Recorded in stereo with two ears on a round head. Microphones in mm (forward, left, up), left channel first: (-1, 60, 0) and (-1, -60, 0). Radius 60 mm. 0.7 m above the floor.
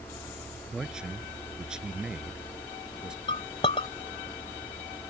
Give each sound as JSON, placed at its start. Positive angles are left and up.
{"t": 0.7, "sound": "a man speaking", "side_deg": -5}
{"t": 3.3, "sound": "a clink", "side_deg": 40}